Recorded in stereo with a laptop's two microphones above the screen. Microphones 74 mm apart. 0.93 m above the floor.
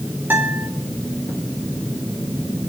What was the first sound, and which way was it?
A guitar, 30° right (ahead or behind).